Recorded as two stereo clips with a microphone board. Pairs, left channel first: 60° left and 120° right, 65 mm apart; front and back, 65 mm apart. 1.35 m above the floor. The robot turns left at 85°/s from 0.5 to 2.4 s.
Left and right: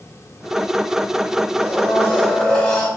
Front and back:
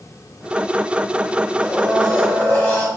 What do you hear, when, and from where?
1.6 s a blender: 80° left, 1.2 m; by 2.9 s 10° left, 1.2 m